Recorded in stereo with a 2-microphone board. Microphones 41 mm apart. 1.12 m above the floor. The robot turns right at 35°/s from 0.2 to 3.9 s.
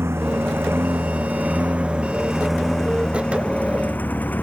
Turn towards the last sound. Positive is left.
turn(degrees=45)